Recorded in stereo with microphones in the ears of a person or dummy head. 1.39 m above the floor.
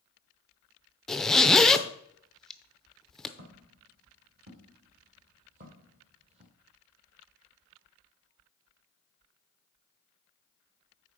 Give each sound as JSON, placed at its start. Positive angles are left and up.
{"t": 1.1, "sound": "a zipper", "side_deg": 5, "distance_m": 0.5}
{"t": 3.4, "sound": "footsteps", "side_deg": -60, "distance_m": 3.0}